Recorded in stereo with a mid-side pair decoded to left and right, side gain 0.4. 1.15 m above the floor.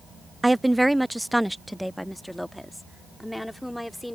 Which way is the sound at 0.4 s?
15° right.